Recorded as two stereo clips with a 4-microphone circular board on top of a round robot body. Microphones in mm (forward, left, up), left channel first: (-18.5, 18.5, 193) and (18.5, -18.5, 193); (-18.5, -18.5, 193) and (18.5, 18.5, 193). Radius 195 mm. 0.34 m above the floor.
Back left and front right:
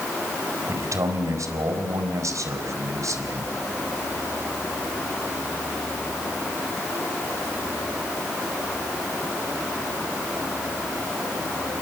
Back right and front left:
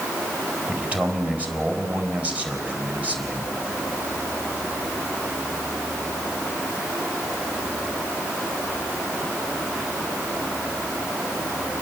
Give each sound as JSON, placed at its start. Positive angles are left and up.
{"t": 0.7, "sound": "a man speaking", "azimuth_deg": -20, "distance_m": 4.5}